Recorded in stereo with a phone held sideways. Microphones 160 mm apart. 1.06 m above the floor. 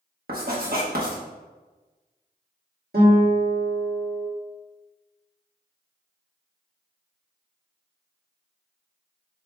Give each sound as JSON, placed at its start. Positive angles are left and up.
{"t": 0.3, "sound": "writing", "side_deg": -65, "distance_m": 1.1}
{"t": 2.9, "sound": "a guitar", "side_deg": -75, "distance_m": 1.4}